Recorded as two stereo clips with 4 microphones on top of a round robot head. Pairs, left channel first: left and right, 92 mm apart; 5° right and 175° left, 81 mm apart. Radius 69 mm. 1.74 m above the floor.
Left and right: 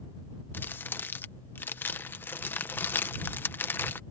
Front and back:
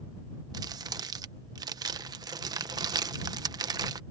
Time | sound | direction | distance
0.5 | crumpling | 150° left | ?